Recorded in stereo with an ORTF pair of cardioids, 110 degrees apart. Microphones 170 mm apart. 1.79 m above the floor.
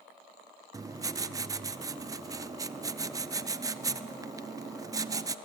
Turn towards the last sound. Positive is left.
turn(degrees=-20)